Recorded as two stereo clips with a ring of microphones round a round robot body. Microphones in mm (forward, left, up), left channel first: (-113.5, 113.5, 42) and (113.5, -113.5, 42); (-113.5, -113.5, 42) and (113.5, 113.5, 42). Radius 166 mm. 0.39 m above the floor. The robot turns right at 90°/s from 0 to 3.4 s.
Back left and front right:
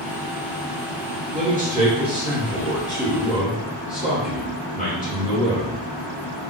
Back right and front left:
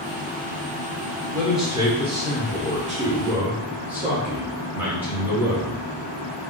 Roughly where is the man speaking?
Ahead right.